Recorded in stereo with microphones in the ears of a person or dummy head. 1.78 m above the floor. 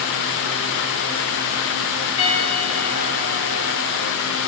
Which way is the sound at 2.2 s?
80° left.